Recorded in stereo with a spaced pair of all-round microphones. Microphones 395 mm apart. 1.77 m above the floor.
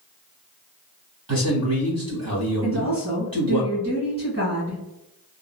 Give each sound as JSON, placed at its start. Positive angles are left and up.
{"t": 1.3, "sound": "a man speaking", "side_deg": -60, "distance_m": 1.4}
{"t": 2.6, "sound": "a woman speaking", "side_deg": -40, "distance_m": 1.8}